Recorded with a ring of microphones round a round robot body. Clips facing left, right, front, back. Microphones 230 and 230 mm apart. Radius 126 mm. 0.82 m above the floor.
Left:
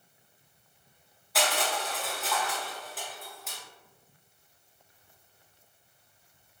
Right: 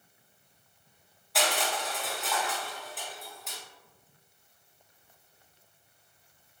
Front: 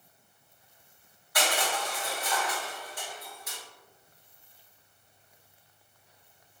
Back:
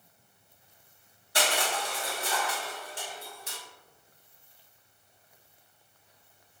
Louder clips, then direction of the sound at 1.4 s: Left 1 dB, even; straight behind.